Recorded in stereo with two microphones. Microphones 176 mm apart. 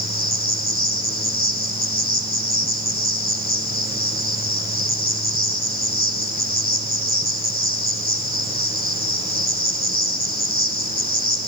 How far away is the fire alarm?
I don't hear a fire alarm.